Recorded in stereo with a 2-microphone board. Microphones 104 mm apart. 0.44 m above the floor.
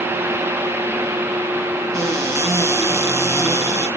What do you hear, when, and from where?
1.9 s a cupboard door: 30° right (ahead or behind), 3.5 m